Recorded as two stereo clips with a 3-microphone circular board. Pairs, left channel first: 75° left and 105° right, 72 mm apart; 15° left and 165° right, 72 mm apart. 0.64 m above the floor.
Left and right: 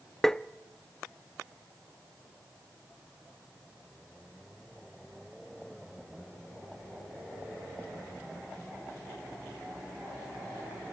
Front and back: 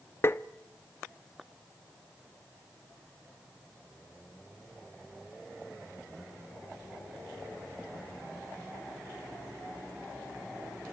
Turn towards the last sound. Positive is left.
turn(degrees=-5)